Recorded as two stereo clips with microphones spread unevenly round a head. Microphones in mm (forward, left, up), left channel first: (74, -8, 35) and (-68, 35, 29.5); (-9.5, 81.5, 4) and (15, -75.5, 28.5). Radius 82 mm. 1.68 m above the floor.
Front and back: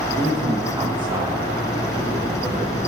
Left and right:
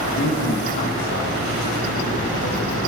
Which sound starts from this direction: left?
A man speaking, at 0.2 s.